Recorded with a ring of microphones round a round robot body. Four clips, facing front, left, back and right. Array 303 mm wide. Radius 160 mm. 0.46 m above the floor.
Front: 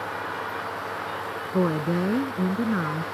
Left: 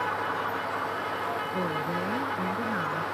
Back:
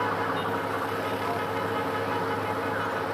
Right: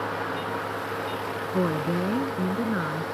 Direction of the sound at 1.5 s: 30° right.